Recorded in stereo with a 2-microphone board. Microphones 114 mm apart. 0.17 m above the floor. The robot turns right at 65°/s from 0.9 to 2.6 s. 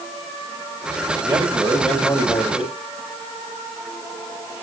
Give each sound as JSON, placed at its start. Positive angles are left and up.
{"t": 1.2, "sound": "a man speaking", "azimuth_deg": -40, "distance_m": 5.5}